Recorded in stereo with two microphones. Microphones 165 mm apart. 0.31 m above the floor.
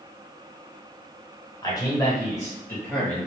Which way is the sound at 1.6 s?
25° left (ahead or behind).